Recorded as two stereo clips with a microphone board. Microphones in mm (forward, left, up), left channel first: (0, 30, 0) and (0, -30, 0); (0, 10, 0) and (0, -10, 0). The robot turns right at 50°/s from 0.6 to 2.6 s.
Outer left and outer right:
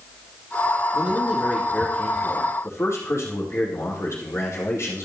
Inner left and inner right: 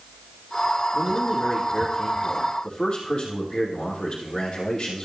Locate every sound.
0.9 s a man speaking: 30° right, 4 m; by 5.1 s 55° left, 4 m